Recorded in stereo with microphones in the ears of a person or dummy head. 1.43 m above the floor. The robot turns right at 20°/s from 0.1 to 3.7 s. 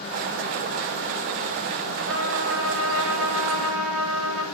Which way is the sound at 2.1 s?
105° right.